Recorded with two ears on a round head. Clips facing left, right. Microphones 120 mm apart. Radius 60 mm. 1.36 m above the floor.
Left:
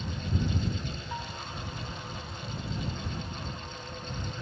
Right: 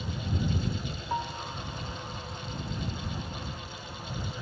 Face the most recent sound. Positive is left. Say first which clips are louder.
# right 5 dB
turn(degrees=-30)  # may be behind; listen again after turning